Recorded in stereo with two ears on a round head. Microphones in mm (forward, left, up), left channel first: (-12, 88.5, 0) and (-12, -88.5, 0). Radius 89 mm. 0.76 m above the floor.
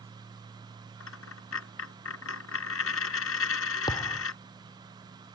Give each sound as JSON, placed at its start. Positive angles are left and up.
{"t": 1.0, "sound": "a dropped coin", "side_deg": 85}
{"t": 3.9, "sound": "a thud", "side_deg": 20}